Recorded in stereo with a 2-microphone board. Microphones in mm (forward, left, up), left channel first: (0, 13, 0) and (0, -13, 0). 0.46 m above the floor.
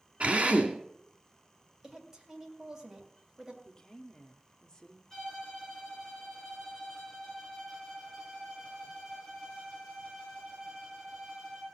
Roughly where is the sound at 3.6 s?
Left.